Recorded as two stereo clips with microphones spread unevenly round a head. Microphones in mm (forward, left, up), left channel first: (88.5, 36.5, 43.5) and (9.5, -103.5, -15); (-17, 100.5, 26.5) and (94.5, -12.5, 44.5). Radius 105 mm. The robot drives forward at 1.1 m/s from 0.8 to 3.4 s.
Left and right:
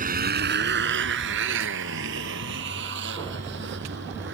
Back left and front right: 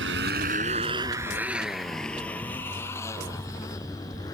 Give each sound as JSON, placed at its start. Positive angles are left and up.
{"t": 0.0, "sound": "a motorcycle", "azimuth_deg": -80}